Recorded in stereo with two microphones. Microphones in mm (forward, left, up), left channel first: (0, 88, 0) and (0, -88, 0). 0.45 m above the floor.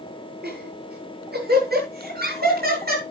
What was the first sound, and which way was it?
Laughter, 70° right (ahead or behind).